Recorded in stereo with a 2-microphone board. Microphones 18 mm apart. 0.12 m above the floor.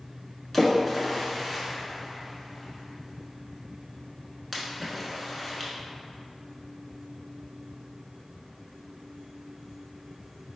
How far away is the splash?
About 0.6 m.